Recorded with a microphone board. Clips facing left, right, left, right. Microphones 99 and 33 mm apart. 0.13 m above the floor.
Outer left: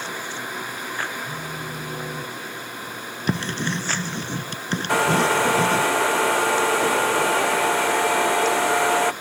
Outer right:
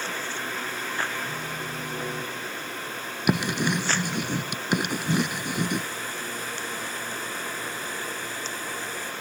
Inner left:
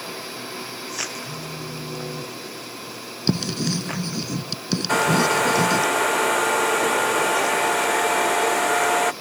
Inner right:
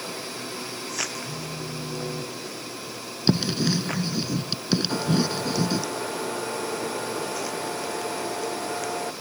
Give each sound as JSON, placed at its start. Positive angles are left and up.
{"t": 1.2, "sound": "a phone buzzing", "side_deg": 10}
{"t": 3.3, "sound": "writing", "side_deg": -15}
{"t": 4.9, "sound": "a hair dryer", "side_deg": 75}